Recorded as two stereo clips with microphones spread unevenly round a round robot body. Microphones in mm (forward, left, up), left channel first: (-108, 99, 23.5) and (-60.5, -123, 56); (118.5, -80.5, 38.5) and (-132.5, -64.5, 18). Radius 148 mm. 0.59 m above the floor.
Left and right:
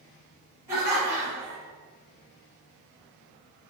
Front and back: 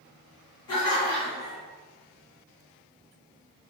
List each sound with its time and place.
0.7 s laughter: 5° left, 1.5 m